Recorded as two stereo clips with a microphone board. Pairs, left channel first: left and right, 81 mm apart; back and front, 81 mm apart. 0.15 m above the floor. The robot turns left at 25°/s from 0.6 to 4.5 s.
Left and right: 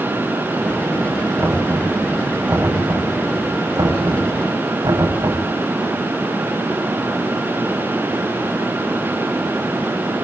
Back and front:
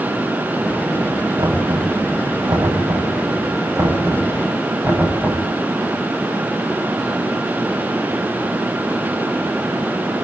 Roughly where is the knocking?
Ahead.